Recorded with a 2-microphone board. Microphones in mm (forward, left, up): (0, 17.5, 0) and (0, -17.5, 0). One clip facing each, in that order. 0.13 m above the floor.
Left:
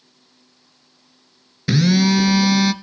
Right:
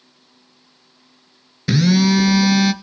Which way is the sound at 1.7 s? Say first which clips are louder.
Right 1 dB; centre (ahead or behind).